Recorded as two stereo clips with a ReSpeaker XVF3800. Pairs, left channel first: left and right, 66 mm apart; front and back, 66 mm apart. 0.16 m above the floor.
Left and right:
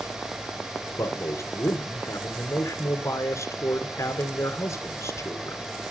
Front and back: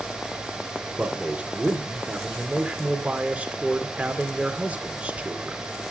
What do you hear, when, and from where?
1.0 s a man speaking: 115° left, 2.0 m